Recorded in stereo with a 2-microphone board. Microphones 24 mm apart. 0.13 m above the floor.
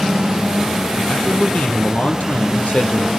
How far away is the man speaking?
About 4.5 m.